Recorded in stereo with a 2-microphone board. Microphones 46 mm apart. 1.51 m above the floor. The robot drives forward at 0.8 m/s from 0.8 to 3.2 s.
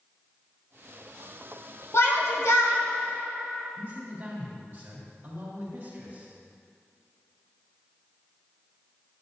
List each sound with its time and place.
1.9 s a shout: 60° left (ahead or behind), 2.5 m; by 2.8 s 75° left (ahead or behind), 2 m
3.8 s a man speaking: 35° right (ahead or behind), 3.5 m